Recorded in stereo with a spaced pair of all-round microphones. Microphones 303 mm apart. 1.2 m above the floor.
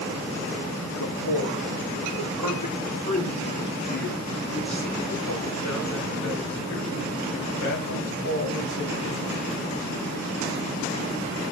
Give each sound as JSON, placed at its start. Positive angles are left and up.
{"t": 1.0, "sound": "a man speaking", "side_deg": 80, "distance_m": 3.5}